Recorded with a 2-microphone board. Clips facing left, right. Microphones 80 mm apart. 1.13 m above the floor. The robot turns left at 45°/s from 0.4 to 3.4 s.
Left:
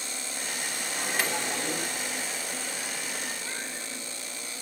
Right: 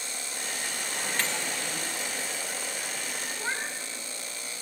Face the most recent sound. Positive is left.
turn(degrees=-45)  # may be behind; listen again after turning